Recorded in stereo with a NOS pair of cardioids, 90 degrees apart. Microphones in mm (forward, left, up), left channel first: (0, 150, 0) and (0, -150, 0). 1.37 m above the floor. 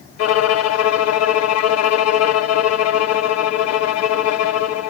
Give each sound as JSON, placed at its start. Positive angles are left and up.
{"t": 0.2, "sound": "a violin", "azimuth_deg": 55, "distance_m": 0.6}